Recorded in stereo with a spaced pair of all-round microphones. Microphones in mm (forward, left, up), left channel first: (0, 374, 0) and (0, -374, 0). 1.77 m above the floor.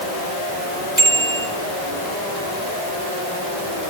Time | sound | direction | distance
1.0 | a bicycle bell | 85° left | 9 m